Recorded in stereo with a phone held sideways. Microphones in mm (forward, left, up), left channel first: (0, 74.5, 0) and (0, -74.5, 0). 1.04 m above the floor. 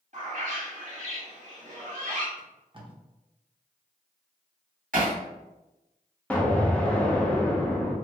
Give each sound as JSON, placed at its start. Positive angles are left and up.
{"t": 0.1, "sound": "a bird", "side_deg": -55, "distance_m": 1.2}
{"t": 2.4, "sound": "tape being pulled", "side_deg": -35, "distance_m": 0.8}
{"t": 4.9, "sound": "hammering", "side_deg": -65, "distance_m": 1.8}
{"t": 6.3, "sound": "an explosion", "side_deg": 10, "distance_m": 0.7}